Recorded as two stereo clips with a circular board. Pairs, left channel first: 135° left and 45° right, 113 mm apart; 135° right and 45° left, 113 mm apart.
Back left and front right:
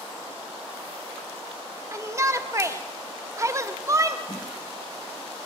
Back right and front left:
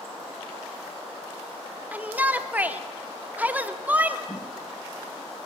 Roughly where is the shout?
Ahead.